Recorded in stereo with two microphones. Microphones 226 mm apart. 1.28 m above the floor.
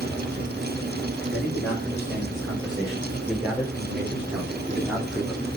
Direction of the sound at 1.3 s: Centre (ahead or behind).